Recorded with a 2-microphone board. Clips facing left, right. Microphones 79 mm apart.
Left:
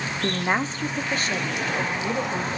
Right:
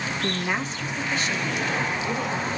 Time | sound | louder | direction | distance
0.2 | a woman speaking | left 5 dB | 25° left (ahead or behind) | 0.8 m